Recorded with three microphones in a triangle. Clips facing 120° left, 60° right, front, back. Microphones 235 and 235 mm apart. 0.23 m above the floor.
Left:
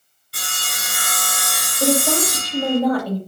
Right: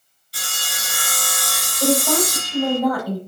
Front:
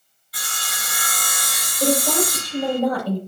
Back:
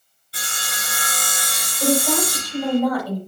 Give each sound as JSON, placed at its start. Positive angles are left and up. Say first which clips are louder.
{"t": 0.3, "sound": "sawing", "louder": "left 1 dB, back 2 dB", "azimuth_deg": 120, "distance_m": 3.0}
{"t": 1.8, "sound": "a woman speaking", "louder": "even, back 1 dB", "azimuth_deg": 60, "distance_m": 6.0}